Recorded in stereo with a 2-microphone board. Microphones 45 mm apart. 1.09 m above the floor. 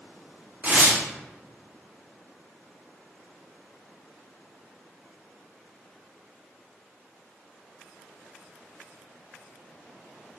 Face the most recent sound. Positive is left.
turn(degrees=-30)  # may be behind; listen again after turning